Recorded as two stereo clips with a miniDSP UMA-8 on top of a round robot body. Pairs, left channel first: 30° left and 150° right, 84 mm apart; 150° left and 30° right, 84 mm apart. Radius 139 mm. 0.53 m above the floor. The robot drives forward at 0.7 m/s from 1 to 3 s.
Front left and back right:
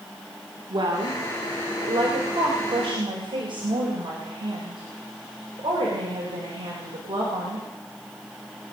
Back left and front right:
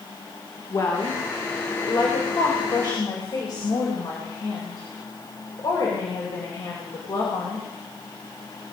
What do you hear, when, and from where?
0.7 s a woman speaking: 165° right, 2.5 m; by 7.7 s 170° right, 4 m